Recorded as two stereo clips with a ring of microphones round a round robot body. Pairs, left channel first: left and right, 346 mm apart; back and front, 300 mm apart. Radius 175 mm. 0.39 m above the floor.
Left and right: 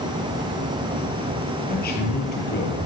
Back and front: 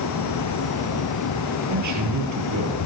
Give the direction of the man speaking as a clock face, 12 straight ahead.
11 o'clock.